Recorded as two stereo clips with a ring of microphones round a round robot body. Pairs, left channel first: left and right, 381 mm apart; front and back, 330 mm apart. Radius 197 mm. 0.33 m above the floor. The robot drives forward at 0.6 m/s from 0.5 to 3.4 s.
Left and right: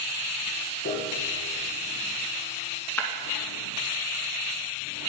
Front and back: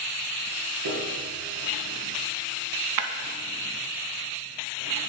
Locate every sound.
0.8 s a piano: 150° left, 1.9 m; by 1.2 s 155° left, 2 m
3.0 s breaking glass: 175° left, 0.8 m